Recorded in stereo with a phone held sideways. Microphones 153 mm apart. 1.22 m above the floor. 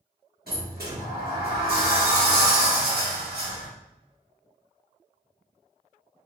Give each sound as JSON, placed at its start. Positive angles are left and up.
{"t": 0.5, "sound": "a sliding door", "side_deg": -80, "distance_m": 1.3}